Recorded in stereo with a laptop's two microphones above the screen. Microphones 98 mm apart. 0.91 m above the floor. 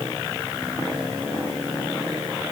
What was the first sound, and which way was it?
Only background noise.